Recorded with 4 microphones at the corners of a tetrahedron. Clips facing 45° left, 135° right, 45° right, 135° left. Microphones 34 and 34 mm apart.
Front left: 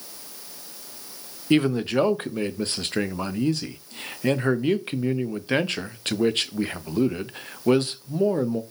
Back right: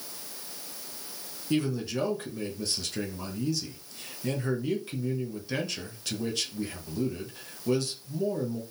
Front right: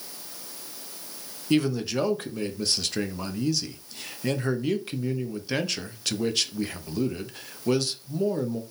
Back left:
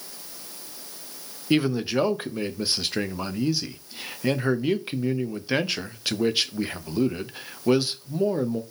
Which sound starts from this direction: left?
A man speaking, at 1.5 s.